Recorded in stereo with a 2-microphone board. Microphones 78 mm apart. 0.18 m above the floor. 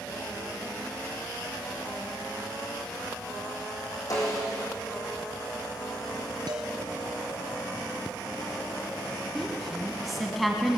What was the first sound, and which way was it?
A snare drum, 45° left (ahead or behind).